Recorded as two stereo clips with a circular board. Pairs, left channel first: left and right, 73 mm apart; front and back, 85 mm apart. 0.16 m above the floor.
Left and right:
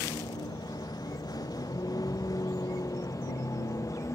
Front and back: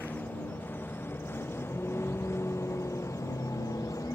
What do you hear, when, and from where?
0.0 s a vehicle: 70° left; by 4.2 s 45° left